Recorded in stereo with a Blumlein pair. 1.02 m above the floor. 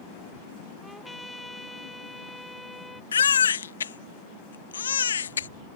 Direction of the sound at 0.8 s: 5° left.